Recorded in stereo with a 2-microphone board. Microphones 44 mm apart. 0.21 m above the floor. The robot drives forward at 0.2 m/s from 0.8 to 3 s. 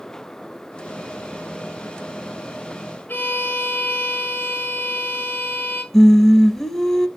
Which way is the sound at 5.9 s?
10° left (ahead or behind).